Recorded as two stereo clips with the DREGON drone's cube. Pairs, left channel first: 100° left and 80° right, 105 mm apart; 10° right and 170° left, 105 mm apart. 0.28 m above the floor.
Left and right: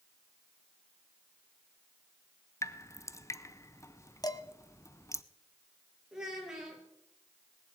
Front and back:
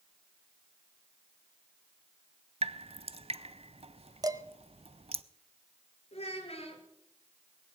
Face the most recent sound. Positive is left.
turn(degrees=5)